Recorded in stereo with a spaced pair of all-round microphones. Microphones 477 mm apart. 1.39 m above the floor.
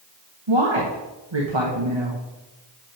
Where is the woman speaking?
80° right, 1.6 m.